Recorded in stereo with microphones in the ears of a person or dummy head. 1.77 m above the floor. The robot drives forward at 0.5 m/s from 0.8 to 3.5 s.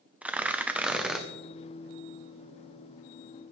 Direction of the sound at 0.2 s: 10° right (ahead or behind).